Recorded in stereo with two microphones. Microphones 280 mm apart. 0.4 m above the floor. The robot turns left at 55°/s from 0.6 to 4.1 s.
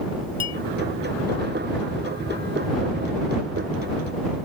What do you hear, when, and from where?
0.4 s a clink: 60° left (ahead or behind)